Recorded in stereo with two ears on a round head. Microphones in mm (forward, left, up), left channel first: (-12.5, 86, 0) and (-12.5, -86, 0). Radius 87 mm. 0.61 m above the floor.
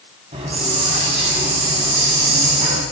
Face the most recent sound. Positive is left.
turn(degrees=-35)  # may be behind; listen again after turning